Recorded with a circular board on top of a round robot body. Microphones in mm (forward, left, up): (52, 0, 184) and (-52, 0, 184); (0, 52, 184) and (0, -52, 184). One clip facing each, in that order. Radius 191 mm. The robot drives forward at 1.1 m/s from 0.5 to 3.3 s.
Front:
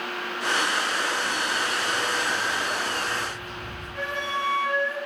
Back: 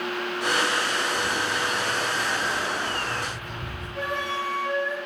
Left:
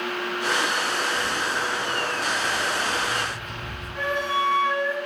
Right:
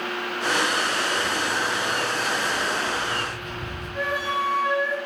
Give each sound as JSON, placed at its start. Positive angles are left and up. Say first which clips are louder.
{"t": 1.2, "sound": "footsteps", "louder": "back 1 dB, right 1 dB", "azimuth_deg": 160, "distance_m": 0.7}
{"t": 4.0, "sound": "a flute", "louder": "back 1 dB, left 1 dB", "azimuth_deg": -175, "distance_m": 2.5}